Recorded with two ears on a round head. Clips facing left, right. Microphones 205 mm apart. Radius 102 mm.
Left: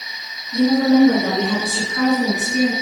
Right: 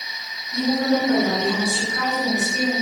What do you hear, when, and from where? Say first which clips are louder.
0.5 s a woman speaking: left 7 dB; 70° left (ahead or behind), 8.5 m; by 2.7 s 55° left (ahead or behind), 6.5 m